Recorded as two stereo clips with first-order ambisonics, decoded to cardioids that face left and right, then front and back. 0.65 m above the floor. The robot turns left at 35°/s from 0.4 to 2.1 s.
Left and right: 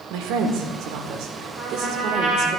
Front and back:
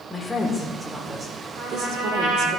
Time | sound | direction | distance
0.1 | a woman speaking | 80° right | 1.7 m
1.6 | a trumpet | 170° right | 4.5 m